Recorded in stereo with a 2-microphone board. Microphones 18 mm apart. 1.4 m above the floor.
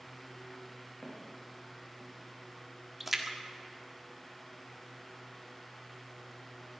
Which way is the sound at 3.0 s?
15° right (ahead or behind).